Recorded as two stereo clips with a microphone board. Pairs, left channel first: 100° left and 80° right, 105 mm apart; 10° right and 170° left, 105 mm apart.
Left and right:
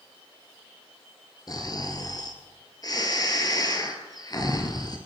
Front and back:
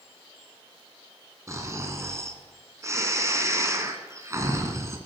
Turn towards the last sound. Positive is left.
turn(degrees=125)